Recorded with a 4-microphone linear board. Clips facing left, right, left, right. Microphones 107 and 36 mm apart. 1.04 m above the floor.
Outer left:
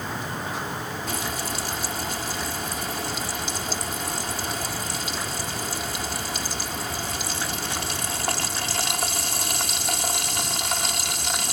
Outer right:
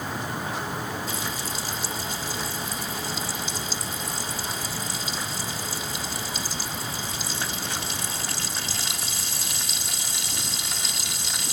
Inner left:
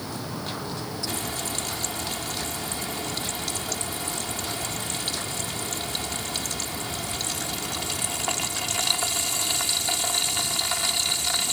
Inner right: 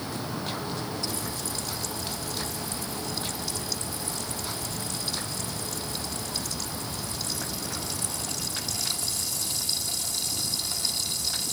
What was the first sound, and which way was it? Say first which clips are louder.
Frying: outer left 2 dB, inner left 3 dB; 60° left (ahead or behind).